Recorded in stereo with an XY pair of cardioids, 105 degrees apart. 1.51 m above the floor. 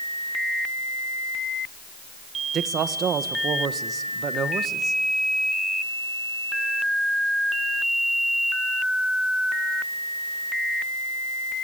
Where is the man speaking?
60° right, 1.2 m.